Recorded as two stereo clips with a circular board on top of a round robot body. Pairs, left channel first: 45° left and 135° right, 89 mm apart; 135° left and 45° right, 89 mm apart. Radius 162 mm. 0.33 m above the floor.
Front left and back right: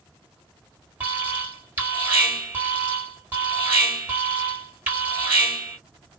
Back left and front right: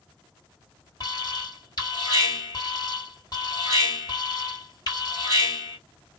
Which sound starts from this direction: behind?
An alarm, at 1.0 s.